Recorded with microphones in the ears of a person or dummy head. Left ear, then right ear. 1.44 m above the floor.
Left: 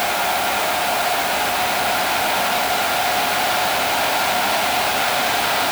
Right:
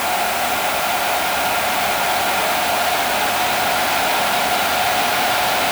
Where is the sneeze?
No sneeze in this recording.